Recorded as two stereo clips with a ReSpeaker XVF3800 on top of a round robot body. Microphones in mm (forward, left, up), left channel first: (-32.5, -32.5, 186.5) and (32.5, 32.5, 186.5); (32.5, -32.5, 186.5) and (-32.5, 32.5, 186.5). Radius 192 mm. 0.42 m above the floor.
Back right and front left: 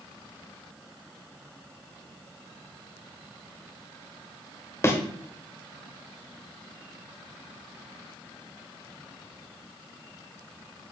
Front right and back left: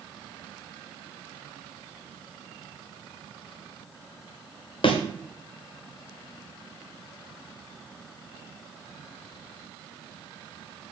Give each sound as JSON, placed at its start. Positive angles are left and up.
{"t": 4.8, "sound": "a thud", "azimuth_deg": -70, "distance_m": 1.1}